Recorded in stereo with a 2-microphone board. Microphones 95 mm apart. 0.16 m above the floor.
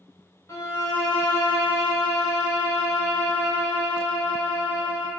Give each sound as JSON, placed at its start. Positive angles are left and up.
{"t": 0.5, "sound": "a violin", "side_deg": 35, "distance_m": 0.8}